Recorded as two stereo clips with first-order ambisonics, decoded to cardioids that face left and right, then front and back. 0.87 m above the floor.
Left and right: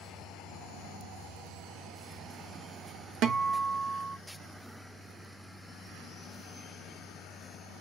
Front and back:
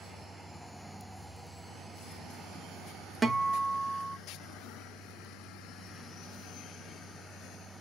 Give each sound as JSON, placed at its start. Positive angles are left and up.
{"t": 3.2, "sound": "a guitar", "azimuth_deg": -105, "distance_m": 0.6}